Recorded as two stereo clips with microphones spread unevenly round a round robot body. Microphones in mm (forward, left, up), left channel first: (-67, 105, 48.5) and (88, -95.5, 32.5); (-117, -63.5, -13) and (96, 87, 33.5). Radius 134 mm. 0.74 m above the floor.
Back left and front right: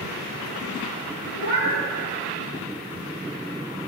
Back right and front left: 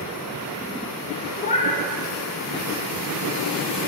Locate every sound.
1.4 s a cat meowing: 150° left, 1.1 m